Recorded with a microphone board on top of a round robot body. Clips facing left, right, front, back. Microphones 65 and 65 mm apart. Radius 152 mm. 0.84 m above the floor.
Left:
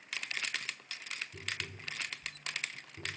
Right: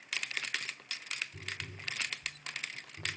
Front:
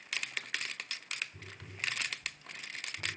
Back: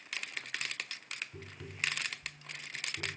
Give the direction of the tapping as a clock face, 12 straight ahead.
7 o'clock.